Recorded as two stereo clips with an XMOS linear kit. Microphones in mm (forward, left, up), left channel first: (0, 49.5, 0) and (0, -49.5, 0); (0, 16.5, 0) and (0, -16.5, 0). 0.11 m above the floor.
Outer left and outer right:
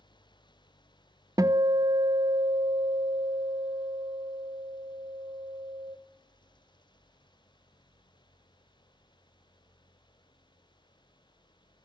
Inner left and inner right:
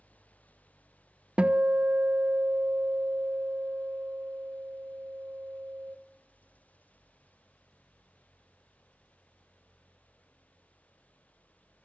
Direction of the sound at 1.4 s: 35° right (ahead or behind).